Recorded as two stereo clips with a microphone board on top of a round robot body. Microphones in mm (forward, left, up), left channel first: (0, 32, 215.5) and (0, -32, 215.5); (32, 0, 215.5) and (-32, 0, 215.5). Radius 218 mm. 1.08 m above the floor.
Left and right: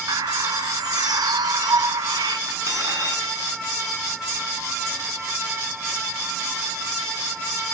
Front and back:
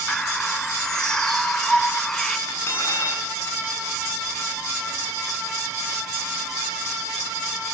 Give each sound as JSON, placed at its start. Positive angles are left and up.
{"t": 0.1, "sound": "a bird", "azimuth_deg": -80, "distance_m": 0.5}
{"t": 2.5, "sound": "cutlery clinking", "azimuth_deg": -55, "distance_m": 7.5}